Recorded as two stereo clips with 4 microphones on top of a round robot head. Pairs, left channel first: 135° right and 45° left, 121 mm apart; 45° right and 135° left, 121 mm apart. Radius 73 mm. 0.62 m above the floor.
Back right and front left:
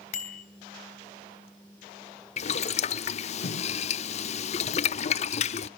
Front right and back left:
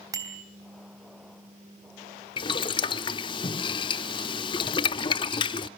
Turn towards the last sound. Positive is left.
turn(degrees=-100)